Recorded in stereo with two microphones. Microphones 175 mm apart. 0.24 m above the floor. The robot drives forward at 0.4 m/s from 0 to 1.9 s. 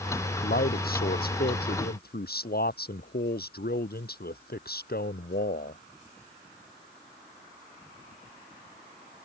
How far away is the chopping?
No chopping in this recording.